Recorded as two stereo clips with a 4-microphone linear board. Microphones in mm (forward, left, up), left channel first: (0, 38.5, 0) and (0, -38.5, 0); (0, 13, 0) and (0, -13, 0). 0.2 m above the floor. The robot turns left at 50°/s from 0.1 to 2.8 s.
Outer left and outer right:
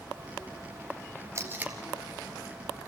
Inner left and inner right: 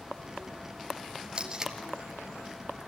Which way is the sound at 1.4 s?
35° right (ahead or behind).